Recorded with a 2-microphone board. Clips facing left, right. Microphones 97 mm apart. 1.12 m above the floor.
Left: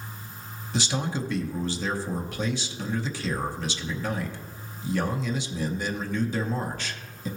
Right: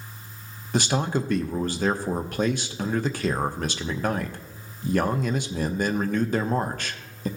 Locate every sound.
0.7 s a man speaking: 55° right (ahead or behind), 0.8 m